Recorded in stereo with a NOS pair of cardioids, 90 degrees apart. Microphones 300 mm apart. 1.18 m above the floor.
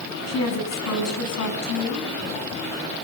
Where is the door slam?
I don't hear a door slam.